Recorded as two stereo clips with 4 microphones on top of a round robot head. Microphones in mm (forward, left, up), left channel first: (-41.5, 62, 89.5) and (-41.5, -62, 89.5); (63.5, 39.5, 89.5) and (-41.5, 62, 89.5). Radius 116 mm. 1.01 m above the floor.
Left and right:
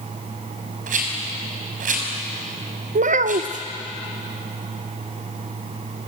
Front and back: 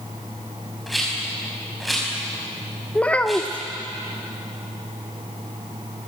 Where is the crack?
I don't hear a crack.